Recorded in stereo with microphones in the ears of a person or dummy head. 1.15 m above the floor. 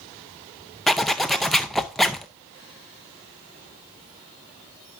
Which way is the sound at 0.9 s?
Centre (ahead or behind).